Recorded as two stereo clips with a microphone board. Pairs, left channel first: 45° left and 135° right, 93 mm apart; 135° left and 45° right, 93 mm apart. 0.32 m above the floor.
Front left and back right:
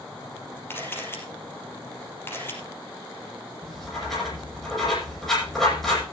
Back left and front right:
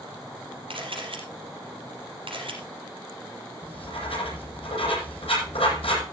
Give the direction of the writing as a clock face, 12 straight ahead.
8 o'clock.